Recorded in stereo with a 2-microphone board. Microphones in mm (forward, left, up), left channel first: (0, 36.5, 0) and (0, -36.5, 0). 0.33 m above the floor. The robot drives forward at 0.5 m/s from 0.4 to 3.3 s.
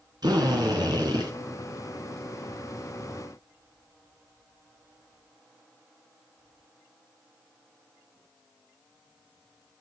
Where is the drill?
75° right (ahead or behind), 3 m.